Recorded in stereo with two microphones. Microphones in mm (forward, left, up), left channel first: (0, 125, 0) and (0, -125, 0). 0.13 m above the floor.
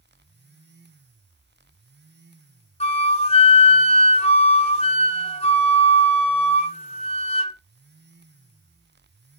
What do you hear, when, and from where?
2.8 s a flute: 25° left (ahead or behind), 1.0 m